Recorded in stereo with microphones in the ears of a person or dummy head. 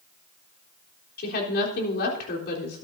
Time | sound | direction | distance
1.2 | a woman speaking | 60° left (ahead or behind) | 3.5 m